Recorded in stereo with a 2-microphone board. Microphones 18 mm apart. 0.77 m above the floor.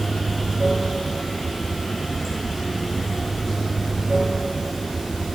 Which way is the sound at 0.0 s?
25° right (ahead or behind).